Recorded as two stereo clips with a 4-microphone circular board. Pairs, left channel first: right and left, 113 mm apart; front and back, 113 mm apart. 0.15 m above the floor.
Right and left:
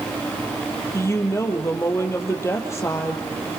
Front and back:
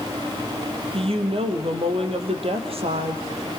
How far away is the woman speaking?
About 3.5 m.